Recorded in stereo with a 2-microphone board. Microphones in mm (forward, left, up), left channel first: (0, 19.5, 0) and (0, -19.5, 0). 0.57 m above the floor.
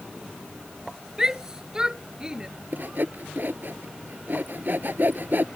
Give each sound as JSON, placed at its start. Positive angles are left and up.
{"t": 1.2, "sound": "a shout", "side_deg": -15}
{"t": 2.7, "sound": "sawing", "side_deg": -50}